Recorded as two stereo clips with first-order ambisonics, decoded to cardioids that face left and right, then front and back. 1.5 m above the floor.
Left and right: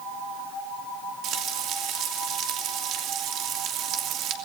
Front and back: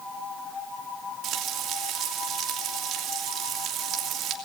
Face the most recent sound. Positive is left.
turn(degrees=-135)